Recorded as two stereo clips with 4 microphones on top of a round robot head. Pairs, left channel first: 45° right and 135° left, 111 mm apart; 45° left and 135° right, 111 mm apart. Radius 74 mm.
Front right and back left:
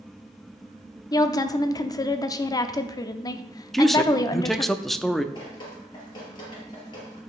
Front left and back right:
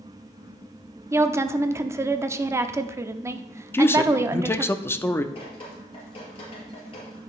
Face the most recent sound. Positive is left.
turn(degrees=5)